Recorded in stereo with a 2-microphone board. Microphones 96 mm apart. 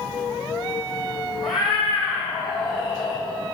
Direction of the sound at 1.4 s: 40° left (ahead or behind).